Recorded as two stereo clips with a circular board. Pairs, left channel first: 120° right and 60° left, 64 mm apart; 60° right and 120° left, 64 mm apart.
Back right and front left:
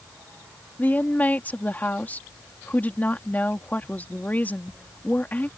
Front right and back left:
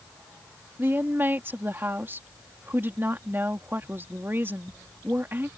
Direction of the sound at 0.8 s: 175° left.